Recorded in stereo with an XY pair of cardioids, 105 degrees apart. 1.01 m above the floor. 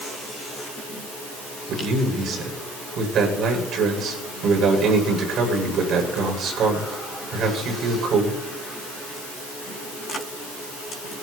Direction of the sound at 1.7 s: 65° right.